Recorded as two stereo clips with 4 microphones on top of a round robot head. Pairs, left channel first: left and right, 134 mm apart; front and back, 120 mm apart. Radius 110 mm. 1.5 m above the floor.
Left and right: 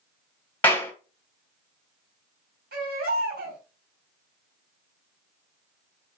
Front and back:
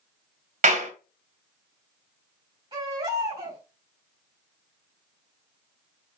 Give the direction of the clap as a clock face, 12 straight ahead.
6 o'clock.